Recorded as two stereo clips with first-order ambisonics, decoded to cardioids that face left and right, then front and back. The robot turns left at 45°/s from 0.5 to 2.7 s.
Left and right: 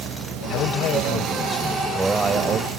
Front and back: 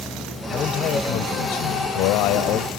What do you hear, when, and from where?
0.5 s a man speaking: 60° left; by 2.7 s 40° right